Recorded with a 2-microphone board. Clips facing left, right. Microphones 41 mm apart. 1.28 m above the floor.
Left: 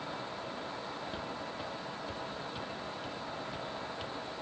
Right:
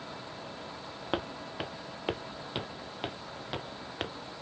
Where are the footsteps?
80° right; by 4.2 s 65° right (ahead or behind).